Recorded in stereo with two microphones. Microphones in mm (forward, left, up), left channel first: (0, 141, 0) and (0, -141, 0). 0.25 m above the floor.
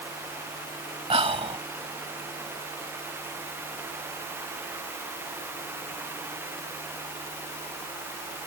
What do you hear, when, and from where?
1.1 s whispering: 20° right (ahead or behind)